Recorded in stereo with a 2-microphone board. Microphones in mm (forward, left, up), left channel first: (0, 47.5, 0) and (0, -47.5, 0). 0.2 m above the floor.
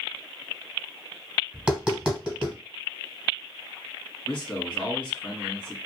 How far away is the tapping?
About 1.2 m.